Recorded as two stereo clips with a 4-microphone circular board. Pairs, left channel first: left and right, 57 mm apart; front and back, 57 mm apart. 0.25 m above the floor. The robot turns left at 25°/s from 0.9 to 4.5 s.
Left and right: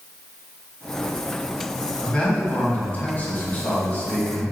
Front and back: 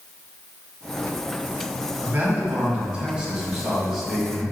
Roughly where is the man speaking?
Behind left.